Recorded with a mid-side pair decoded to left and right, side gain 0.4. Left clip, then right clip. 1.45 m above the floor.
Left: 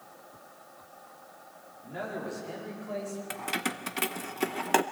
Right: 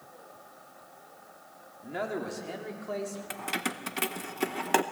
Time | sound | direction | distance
1.8 | a man speaking | 55° right | 4.5 m
3.3 | keys jangling | 5° right | 1.0 m